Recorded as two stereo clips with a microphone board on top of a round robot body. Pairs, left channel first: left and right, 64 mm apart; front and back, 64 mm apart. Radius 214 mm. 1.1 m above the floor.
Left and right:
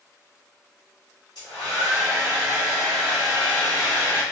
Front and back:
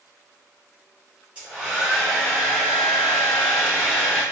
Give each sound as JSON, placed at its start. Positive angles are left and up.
{"t": 1.4, "sound": "a hair dryer", "azimuth_deg": 110, "distance_m": 1.2}